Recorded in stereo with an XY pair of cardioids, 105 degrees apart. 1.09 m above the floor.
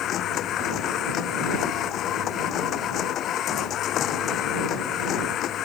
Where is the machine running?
70° left.